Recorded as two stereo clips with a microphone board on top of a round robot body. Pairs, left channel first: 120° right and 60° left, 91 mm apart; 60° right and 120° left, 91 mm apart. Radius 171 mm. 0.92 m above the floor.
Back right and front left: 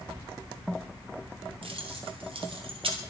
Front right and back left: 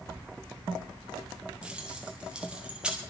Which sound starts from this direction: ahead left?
Keys jangling, at 1.6 s.